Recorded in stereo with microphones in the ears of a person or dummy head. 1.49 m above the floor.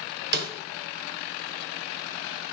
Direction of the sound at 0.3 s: 60° right (ahead or behind).